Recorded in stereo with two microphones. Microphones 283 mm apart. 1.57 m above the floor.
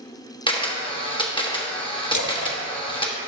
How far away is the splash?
About 0.7 m.